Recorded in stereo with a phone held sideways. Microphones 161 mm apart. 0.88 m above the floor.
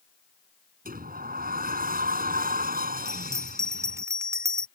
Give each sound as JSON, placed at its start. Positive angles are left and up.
{"t": 0.8, "sound": "a sliding door", "side_deg": -70}
{"t": 3.0, "sound": "a bell", "side_deg": -20}